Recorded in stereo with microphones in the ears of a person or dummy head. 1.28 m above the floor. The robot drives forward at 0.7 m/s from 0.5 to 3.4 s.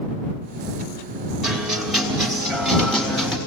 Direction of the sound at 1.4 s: 5° right (ahead or behind).